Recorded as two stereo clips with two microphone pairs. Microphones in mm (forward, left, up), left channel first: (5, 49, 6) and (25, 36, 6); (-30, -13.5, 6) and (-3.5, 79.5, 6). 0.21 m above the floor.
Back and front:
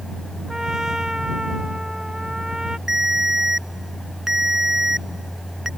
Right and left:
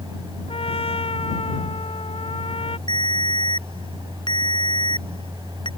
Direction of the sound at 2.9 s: 100° right.